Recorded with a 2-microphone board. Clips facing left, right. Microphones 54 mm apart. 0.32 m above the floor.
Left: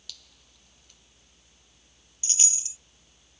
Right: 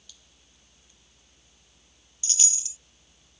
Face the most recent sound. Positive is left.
turn(degrees=30)  # may be behind; listen again after turning